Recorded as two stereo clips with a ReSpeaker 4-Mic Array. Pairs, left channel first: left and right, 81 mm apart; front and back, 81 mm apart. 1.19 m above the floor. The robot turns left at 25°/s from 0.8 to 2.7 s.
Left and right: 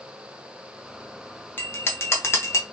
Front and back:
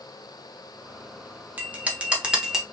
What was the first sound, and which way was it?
A bell, 130° left.